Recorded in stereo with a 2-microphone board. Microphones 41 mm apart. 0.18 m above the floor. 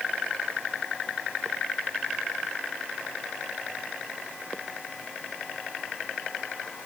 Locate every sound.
Only background noise.